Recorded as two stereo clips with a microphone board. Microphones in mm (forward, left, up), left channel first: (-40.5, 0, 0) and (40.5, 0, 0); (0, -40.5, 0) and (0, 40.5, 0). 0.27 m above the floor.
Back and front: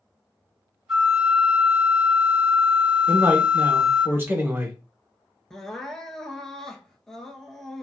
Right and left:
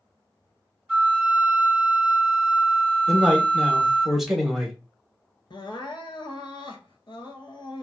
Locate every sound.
0.9 s a flute: 55° left, 1.4 m
3.1 s a man speaking: 10° left, 1.0 m
5.5 s crying: 95° right, 0.6 m